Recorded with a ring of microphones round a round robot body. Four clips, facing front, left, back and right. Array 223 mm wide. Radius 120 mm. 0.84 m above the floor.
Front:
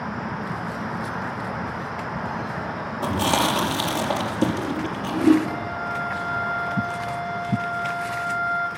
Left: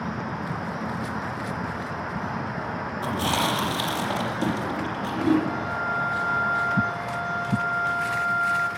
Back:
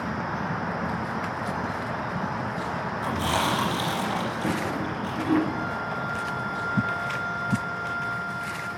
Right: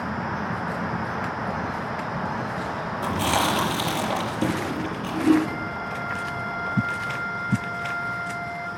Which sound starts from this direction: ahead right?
A flute, at 5.5 s.